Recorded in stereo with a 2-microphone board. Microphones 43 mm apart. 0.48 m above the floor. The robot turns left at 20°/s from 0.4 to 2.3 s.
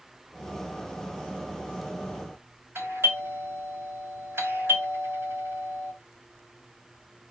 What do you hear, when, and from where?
2.8 s a doorbell: 65° right (ahead or behind), 4.5 m